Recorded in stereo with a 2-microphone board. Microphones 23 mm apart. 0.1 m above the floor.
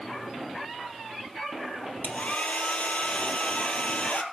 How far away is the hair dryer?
About 0.9 m.